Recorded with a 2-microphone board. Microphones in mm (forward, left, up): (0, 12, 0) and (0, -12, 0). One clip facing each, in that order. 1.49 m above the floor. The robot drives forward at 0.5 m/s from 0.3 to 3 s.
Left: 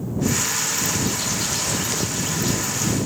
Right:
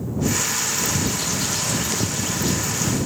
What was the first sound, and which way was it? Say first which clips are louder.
A bird: even; centre (ahead or behind).